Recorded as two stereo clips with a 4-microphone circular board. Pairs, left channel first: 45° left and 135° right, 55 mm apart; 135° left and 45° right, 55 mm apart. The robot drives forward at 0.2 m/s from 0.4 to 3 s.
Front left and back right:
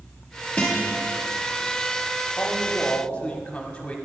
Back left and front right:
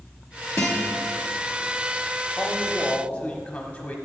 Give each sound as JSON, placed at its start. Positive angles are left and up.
{"t": 0.6, "sound": "a guitar", "azimuth_deg": 115, "distance_m": 1.5}
{"t": 2.4, "sound": "a man speaking", "azimuth_deg": 80, "distance_m": 0.8}